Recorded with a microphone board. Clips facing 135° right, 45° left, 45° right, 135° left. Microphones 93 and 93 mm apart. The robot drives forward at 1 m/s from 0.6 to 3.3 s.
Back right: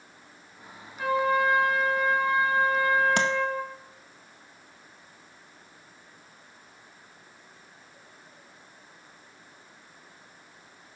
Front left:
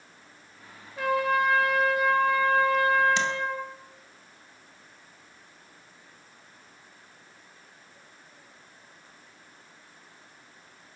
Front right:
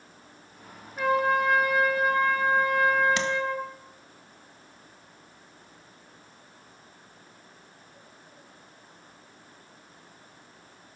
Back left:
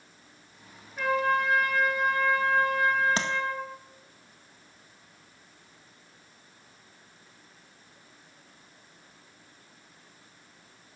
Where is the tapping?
170° right, 1.7 m.